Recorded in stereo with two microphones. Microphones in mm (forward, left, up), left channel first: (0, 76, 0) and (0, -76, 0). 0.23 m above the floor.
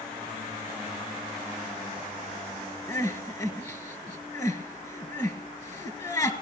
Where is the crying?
25° left (ahead or behind), 1.7 m.